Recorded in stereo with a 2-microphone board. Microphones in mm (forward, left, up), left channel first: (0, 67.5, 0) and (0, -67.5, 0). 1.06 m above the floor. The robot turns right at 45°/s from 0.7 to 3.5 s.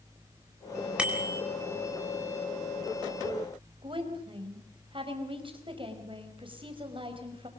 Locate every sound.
1.0 s a bicycle bell: 5° right (ahead or behind), 4 m; by 1.4 s 25° right (ahead or behind), 4 m
3.8 s a woman speaking: 40° right (ahead or behind), 5 m